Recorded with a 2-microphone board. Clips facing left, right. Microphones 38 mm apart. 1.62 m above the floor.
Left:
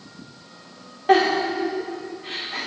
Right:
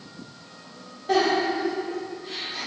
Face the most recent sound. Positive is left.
turn(degrees=60)  # may be behind; listen again after turning